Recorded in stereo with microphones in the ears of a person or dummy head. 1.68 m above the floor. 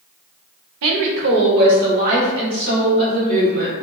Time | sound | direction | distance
0.8 | a woman speaking | 80° right | 0.6 m